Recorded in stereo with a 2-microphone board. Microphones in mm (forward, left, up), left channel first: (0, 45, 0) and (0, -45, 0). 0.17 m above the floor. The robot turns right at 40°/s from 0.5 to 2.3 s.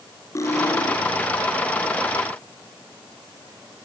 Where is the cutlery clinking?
35° left (ahead or behind), 2.5 m; by 1.0 s 50° left (ahead or behind), 2.5 m.